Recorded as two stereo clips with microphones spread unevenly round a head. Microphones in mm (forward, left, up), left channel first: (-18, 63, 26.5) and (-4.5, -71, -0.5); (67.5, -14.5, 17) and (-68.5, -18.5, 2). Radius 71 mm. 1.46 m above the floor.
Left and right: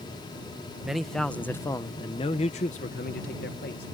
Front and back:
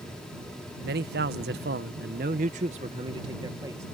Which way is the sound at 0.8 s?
170° right.